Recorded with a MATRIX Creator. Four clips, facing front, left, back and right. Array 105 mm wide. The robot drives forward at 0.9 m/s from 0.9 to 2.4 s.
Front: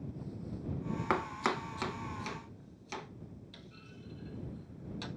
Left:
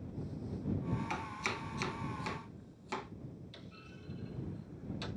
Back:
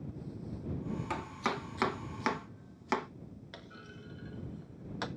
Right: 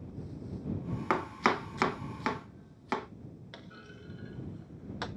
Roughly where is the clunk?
Behind right.